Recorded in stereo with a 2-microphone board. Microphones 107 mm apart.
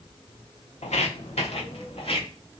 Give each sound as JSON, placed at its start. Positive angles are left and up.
{"t": 0.8, "sound": "footsteps", "side_deg": 85, "distance_m": 0.6}